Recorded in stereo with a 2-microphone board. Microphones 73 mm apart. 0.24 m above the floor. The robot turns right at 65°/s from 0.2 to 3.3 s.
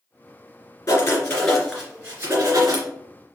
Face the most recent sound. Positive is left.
turn(degrees=-70)